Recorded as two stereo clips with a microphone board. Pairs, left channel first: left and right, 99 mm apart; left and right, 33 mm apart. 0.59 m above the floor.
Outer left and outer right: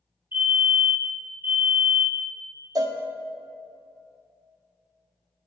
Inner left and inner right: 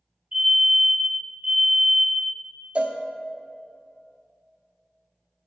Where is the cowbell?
40° right (ahead or behind), 0.5 m.